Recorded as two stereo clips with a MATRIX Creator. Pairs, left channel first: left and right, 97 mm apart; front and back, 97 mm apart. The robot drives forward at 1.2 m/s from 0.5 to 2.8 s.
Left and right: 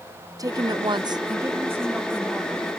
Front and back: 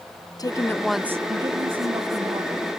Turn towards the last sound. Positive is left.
turn(degrees=-170)